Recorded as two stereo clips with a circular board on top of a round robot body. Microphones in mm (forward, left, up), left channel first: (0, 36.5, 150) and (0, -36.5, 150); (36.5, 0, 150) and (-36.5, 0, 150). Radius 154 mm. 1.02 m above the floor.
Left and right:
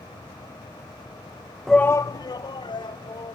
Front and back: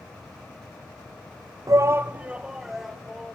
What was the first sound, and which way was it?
A shout, 175° left.